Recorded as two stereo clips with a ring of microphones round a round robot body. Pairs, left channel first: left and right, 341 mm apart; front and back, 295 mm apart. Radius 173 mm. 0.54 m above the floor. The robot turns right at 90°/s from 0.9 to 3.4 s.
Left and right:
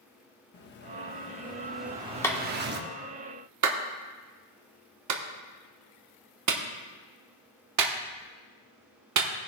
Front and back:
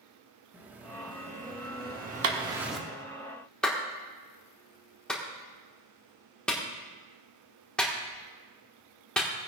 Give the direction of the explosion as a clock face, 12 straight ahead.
9 o'clock.